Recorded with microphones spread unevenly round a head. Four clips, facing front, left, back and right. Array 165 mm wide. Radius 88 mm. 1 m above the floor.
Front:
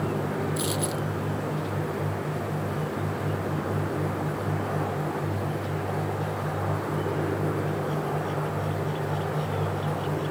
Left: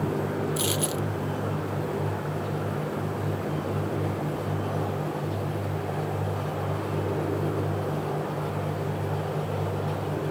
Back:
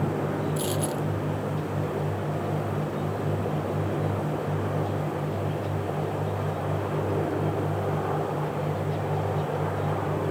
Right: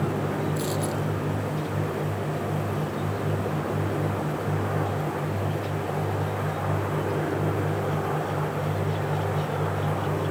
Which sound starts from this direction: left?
A dropped coin, at 0.6 s.